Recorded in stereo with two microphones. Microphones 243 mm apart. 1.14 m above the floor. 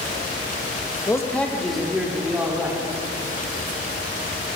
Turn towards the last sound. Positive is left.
turn(degrees=-10)  # may be behind; listen again after turning